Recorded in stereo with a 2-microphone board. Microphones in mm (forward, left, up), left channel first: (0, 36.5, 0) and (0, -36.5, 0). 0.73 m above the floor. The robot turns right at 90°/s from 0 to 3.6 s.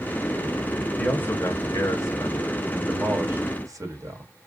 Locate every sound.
1.0 s a man speaking: 20° left, 1.0 m; by 4.3 s 105° right, 1.0 m